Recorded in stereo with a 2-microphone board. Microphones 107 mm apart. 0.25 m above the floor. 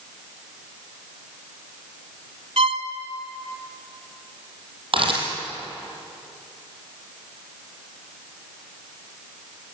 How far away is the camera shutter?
About 5 m.